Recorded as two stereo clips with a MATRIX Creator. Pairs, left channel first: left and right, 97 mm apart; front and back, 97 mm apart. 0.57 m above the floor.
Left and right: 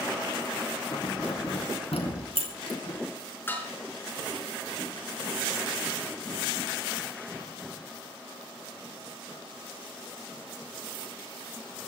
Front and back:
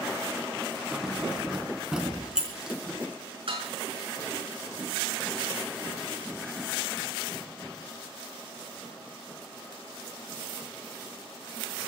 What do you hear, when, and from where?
0.9 s keys jangling: 95° left, 3 m
3.5 s dishes clattering: 160° left, 4.5 m